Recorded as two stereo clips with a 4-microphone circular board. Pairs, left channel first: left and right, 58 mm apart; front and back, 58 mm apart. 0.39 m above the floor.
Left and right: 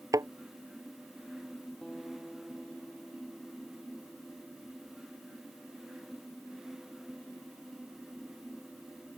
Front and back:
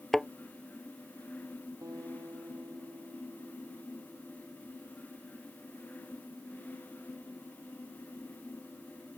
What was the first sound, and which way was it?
A thud, 85° right.